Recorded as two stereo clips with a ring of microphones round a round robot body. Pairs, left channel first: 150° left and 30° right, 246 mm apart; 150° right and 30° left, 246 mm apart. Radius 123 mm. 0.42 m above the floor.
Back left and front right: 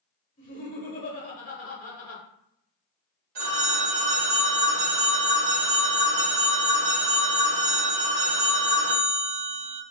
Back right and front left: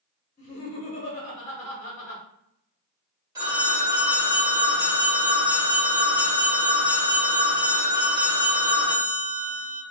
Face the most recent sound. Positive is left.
turn(degrees=-40)